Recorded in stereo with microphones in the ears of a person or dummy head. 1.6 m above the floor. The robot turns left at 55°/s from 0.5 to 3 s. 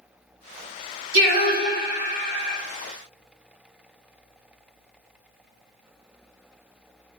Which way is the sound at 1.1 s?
80° right.